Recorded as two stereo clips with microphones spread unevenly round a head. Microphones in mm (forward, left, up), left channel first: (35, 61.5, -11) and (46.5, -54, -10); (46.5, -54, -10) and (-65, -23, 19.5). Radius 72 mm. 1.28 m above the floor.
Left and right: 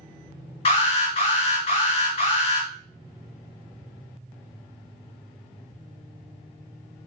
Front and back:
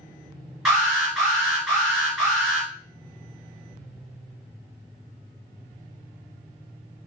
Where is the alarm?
70° left, 2.0 m.